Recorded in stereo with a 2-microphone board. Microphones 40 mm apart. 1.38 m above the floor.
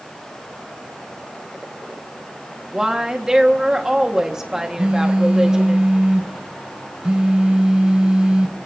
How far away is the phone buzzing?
About 0.8 m.